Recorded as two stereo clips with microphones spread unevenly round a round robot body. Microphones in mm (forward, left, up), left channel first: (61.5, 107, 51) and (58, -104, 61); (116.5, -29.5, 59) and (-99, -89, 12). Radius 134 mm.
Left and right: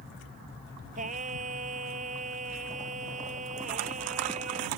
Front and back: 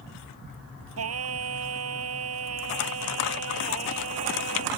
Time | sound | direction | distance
1.0 | singing | 155° right | ?